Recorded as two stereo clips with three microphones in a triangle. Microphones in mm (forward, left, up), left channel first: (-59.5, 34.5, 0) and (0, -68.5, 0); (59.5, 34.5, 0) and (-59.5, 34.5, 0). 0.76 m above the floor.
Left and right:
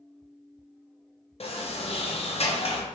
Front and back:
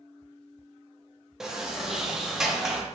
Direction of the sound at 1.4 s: 95° left.